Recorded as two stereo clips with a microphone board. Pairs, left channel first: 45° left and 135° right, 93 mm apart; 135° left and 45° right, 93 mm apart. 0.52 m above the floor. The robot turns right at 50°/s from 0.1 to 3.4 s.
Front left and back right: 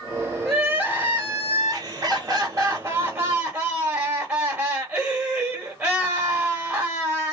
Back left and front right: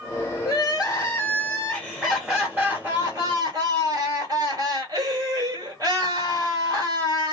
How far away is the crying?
About 1.7 m.